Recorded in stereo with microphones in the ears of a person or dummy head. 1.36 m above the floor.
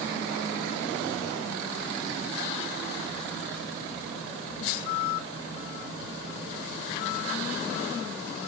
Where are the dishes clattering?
No dishes clattering in this recording.